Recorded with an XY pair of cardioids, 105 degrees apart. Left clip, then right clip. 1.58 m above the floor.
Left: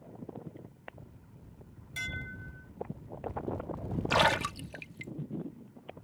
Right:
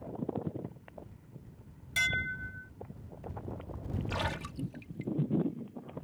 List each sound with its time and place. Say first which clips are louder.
2.0 s dishes clattering: right 8 dB; 50° right
4.1 s a splash: left 11 dB; 70° left